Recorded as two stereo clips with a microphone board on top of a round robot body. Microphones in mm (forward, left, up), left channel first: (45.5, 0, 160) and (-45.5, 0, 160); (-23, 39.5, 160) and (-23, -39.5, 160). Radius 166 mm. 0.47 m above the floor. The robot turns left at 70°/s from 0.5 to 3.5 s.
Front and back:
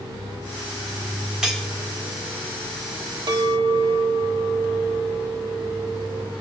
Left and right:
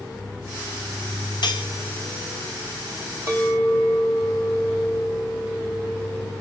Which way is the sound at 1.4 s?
100° left.